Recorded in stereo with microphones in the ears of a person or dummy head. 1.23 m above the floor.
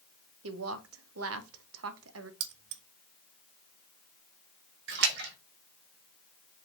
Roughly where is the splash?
Right.